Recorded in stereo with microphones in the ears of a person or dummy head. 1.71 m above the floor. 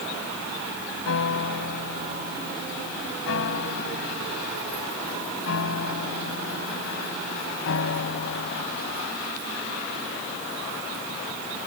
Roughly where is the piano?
Left.